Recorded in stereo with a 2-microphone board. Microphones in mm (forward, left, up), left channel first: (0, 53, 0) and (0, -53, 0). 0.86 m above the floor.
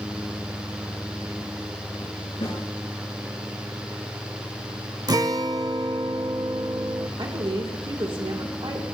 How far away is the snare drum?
About 4.5 m.